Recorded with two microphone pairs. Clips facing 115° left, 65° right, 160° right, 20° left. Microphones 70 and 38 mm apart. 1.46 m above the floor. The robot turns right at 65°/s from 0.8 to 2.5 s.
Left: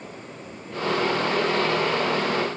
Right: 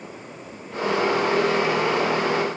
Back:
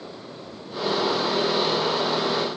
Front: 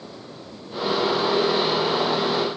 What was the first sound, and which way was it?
Only background noise.